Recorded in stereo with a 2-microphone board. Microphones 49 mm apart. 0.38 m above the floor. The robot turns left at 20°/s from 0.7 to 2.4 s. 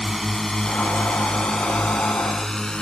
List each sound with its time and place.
0.0 s a drone: centre (ahead or behind); by 2.8 s 15° left (ahead or behind)